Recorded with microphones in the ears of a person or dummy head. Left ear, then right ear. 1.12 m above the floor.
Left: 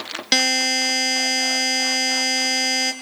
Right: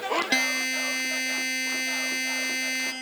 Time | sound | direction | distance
0.3 | a buzzer | 30° left (ahead or behind) | 1.0 m